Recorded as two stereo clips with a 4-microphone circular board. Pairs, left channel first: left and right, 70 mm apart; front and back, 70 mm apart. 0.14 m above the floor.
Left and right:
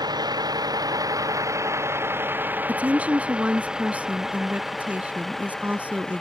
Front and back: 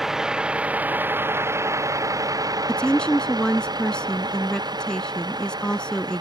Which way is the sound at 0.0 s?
95° right.